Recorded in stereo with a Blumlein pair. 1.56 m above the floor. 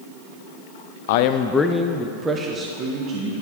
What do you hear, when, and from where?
1.1 s a man speaking: 55° left, 0.6 m; by 3.3 s 35° right, 1.6 m